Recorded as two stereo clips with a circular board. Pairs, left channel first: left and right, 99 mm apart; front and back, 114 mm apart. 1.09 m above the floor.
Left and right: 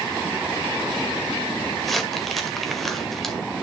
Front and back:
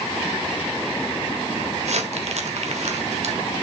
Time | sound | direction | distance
1.8 | crumpling | straight behind | 1.8 m